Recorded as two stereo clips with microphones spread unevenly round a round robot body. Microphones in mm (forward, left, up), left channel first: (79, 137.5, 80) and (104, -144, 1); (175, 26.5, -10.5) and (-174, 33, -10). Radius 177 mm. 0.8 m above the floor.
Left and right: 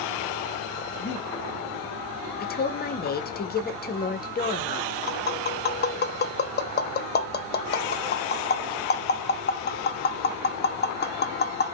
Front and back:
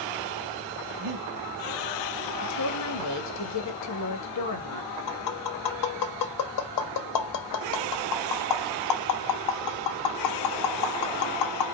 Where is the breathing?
155° left, 1.3 m.